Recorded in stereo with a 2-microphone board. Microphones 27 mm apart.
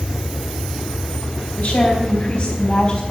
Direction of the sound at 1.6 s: 55° left (ahead or behind).